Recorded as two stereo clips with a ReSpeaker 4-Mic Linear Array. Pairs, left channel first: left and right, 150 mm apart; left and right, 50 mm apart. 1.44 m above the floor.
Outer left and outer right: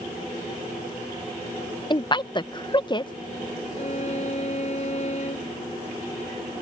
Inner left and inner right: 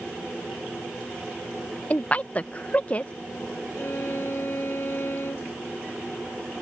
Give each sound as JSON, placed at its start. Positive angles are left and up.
{"t": 1.9, "sound": "a woman speaking", "side_deg": 30}
{"t": 3.8, "sound": "a violin", "side_deg": 55}